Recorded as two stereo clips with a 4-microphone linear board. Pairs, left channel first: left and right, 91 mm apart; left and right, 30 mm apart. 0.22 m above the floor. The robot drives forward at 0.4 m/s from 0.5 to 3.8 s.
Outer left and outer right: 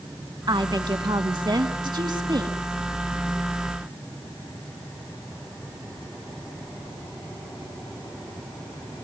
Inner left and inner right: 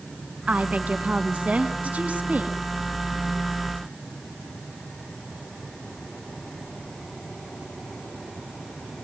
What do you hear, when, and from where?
0.5 s a woman speaking: 50° right (ahead or behind), 2 m; by 2.6 s 55° right (ahead or behind), 2 m